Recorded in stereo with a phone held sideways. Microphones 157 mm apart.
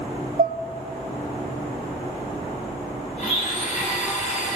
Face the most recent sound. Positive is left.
turn(degrees=50)  # may be behind; listen again after turning